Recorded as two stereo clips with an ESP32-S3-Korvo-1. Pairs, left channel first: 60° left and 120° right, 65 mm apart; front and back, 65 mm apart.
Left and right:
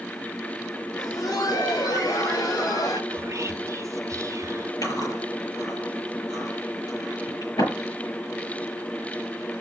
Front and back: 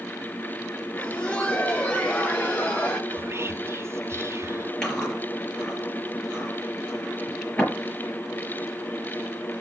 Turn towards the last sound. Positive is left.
turn(degrees=80)